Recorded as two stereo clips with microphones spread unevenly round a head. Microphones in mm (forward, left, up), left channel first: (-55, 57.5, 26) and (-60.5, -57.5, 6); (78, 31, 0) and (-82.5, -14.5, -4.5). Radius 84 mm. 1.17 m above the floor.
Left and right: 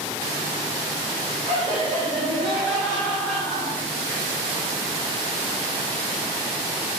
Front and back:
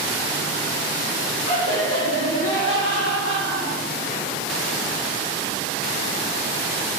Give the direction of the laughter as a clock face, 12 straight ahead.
11 o'clock.